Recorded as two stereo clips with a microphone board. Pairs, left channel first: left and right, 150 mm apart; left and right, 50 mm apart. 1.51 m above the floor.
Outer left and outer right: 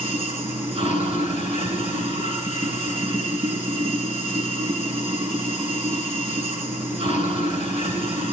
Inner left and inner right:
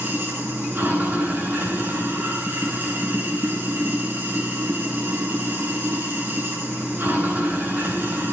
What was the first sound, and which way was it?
Running water, 40° right (ahead or behind).